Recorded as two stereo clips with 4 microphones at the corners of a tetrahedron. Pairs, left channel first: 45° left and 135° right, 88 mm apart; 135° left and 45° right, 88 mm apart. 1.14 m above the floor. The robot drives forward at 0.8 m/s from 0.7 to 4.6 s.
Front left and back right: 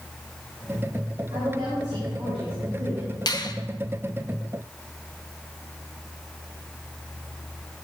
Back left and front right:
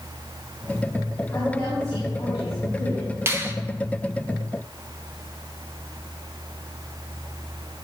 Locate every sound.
1.3 s a woman speaking: 170° right, 5 m
3.3 s a finger snap: 15° left, 1.0 m; by 3.5 s 20° left, 0.8 m